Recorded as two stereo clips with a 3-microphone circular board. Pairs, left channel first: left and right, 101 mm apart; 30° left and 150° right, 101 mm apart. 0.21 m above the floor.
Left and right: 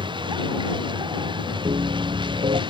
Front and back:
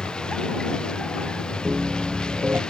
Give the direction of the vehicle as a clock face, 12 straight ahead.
2 o'clock.